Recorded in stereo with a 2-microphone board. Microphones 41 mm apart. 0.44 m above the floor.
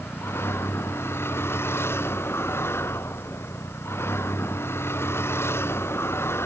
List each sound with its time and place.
0.0 s a vehicle: 80° left; by 6.5 s 85° left